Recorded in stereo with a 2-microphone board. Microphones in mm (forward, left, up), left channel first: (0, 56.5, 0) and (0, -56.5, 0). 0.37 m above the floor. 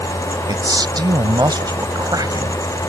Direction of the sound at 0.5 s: 40° right (ahead or behind).